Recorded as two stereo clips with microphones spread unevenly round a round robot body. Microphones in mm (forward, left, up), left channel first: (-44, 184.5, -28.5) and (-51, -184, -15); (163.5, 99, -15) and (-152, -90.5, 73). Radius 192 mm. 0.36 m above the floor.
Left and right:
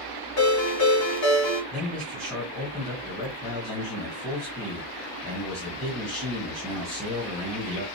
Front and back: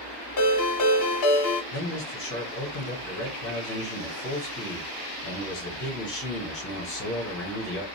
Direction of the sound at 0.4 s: 45° left.